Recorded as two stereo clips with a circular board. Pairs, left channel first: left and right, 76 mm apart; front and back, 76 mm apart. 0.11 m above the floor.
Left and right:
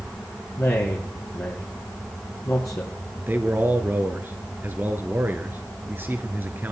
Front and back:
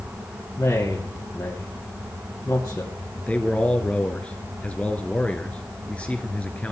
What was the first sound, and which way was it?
A man speaking, 45° left.